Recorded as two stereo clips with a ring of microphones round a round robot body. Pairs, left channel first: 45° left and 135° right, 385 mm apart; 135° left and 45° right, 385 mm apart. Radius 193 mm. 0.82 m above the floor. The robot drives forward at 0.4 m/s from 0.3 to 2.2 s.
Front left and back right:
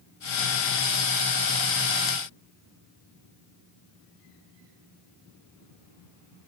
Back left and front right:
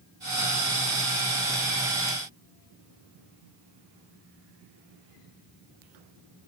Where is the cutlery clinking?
I don't hear cutlery clinking.